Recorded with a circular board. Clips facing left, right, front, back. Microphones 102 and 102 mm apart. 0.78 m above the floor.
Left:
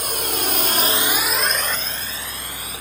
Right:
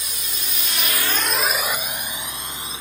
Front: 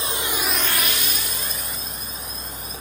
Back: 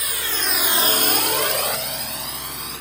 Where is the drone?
60° left; by 2.8 s 155° right.